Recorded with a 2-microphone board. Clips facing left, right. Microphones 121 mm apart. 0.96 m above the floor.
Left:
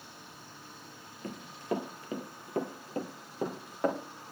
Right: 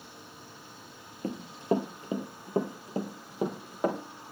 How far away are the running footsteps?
About 1.2 m.